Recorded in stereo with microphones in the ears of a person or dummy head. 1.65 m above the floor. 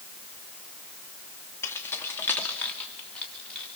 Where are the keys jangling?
15° left (ahead or behind), 2 m; by 3.7 s 10° left (ahead or behind), 3.5 m.